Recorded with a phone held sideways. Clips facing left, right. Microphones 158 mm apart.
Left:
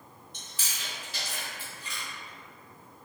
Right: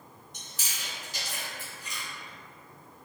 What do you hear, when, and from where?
0.3 s chewing: 45° right (ahead or behind), 1.0 m